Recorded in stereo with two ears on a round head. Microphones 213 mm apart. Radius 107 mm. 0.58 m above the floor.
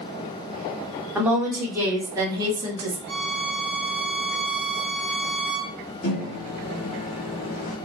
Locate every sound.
1.1 s a woman speaking: 5° right (ahead or behind), 1.4 m; by 3.0 s 20° right (ahead or behind), 0.9 m
3.1 s a violin: 45° right (ahead or behind), 1.7 m
6.0 s a microwave: 40° left (ahead or behind), 1.2 m